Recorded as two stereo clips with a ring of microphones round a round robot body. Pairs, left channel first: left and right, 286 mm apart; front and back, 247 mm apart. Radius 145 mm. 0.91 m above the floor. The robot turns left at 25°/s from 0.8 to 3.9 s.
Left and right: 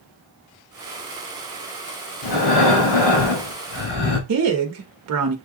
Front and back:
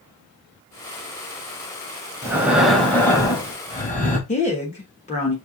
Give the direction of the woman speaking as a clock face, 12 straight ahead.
2 o'clock.